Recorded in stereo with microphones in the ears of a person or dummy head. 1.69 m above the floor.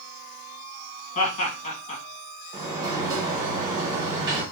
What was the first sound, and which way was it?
Laughter, 35° left (ahead or behind).